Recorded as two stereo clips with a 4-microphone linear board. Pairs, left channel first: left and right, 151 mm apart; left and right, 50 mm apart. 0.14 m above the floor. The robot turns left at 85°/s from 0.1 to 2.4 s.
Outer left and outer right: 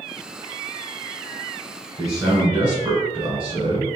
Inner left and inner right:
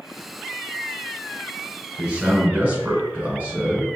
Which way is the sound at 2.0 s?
35° right.